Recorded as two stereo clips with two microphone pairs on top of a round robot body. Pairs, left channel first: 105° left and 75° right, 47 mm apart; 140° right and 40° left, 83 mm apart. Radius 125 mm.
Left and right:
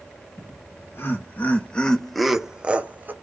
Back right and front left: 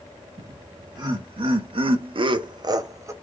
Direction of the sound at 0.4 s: 80° left.